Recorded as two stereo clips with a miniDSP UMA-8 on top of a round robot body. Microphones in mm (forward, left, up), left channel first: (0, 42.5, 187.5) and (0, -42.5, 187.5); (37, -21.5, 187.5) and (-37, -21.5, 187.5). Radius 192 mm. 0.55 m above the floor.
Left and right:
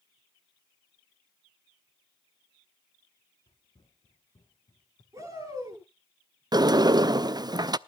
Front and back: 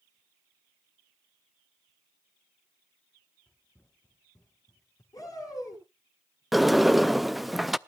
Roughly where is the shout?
Ahead right.